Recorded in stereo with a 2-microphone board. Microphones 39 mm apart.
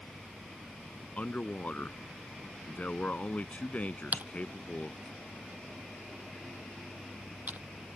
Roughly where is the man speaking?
Left.